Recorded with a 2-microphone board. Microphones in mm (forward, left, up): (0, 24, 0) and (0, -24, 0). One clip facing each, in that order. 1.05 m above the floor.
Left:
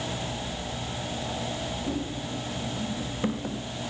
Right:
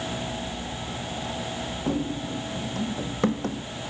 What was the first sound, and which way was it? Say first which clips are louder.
Running footsteps: right 8 dB; 70° right (ahead or behind).